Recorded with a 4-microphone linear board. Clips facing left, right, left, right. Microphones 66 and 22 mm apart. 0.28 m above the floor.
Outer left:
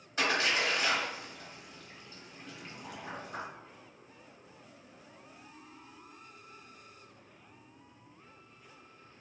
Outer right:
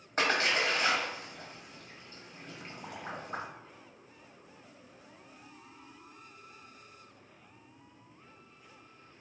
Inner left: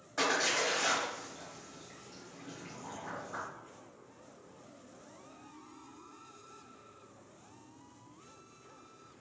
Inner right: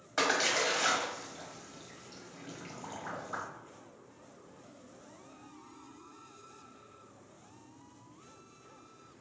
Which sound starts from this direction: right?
A splash, at 0.2 s.